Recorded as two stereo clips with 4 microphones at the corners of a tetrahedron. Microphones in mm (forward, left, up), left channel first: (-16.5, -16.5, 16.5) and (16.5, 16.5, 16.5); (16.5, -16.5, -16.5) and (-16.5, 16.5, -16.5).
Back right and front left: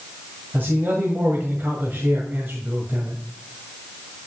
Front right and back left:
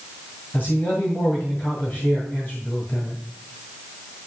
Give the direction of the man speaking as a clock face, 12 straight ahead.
12 o'clock.